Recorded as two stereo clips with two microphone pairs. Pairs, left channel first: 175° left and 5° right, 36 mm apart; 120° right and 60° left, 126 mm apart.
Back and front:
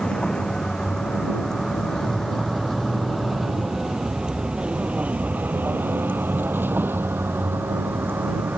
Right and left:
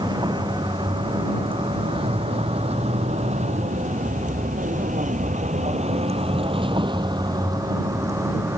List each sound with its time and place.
0.0 s a vehicle: 110° left; by 8.6 s 10° right